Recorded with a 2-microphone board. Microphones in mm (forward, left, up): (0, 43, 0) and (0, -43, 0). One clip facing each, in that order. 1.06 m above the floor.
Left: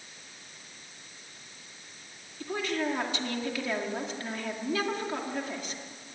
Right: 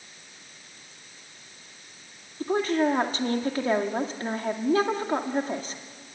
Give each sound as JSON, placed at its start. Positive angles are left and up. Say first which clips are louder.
{"t": 2.4, "sound": "a woman speaking", "louder": "right 8 dB", "side_deg": -35, "distance_m": 2.0}